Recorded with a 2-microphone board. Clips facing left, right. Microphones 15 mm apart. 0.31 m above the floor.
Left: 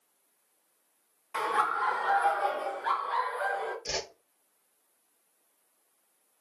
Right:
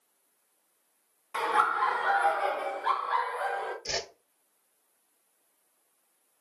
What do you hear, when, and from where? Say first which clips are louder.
1.3 s laughter: right 2 dB; 25° right (ahead or behind), 0.9 m; by 3.8 s 35° right (ahead or behind), 1.9 m
3.9 s a whoosh: right 1 dB; 15° right (ahead or behind), 1.3 m